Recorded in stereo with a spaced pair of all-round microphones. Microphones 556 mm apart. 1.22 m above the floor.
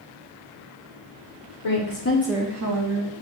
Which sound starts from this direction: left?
A woman speaking, at 1.6 s.